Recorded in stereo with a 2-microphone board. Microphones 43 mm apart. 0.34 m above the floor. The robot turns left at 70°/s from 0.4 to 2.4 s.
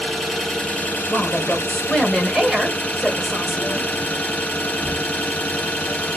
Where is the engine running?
170° left, 1.4 m; by 6.2 s 30° left, 1.4 m.